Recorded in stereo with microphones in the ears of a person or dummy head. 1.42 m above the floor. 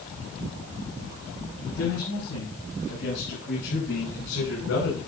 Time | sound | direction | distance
1.6 | a man speaking | 65° left (ahead or behind) | 10 m